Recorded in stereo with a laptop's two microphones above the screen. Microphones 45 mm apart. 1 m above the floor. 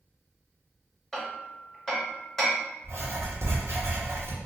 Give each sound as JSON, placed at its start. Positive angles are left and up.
{"t": 1.1, "sound": "hammering", "side_deg": 5, "distance_m": 1.1}
{"t": 2.8, "sound": "writing", "side_deg": -70, "distance_m": 1.1}